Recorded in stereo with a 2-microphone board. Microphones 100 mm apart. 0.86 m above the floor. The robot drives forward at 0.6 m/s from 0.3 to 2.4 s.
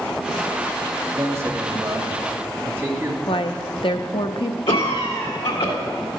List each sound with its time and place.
1.2 s a man speaking: 30° right (ahead or behind), 1.4 m; by 3.2 s 20° right (ahead or behind), 2.0 m
3.3 s a woman speaking: 60° left (ahead or behind), 0.6 m
4.7 s a cough: 60° left (ahead or behind), 1.8 m